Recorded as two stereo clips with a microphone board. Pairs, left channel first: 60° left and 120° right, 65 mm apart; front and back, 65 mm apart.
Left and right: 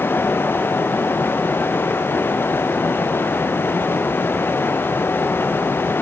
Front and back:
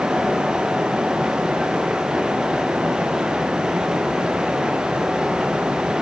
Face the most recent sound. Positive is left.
No sound to turn to.